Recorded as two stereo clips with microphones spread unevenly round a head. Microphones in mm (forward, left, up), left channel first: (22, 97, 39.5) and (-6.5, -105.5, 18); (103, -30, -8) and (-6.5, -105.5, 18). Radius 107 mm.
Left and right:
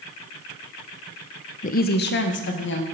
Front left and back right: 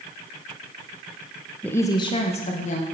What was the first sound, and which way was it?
A woman speaking, 85° left.